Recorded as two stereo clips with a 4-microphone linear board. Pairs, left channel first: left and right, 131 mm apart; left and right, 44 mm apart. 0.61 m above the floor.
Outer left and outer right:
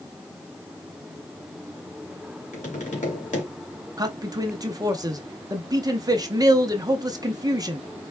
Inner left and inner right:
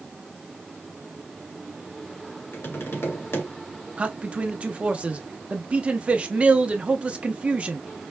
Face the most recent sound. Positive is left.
turn(degrees=-30)  # may be behind; listen again after turning